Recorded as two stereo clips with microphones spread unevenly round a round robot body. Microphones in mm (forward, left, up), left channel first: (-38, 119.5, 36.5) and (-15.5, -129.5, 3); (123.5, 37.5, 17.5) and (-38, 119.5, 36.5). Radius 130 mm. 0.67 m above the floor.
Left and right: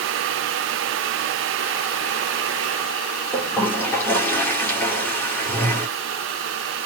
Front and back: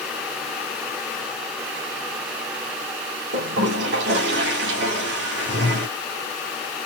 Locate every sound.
3.3 s a toilet flushing: straight behind, 1.8 m